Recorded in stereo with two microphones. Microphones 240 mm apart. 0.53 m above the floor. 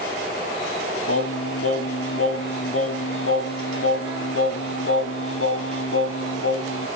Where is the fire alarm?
No fire alarm in this recording.